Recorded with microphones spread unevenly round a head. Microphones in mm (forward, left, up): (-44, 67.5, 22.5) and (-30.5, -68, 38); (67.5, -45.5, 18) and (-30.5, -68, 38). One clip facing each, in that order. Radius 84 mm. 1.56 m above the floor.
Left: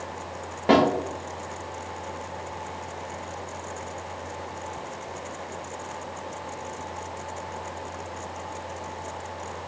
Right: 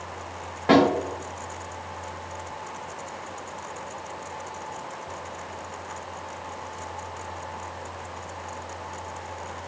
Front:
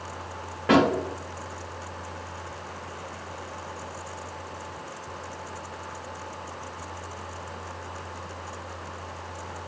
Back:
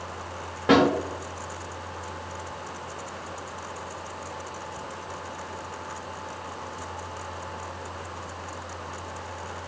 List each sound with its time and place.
0.7 s a snare drum: 160° left, 1.4 m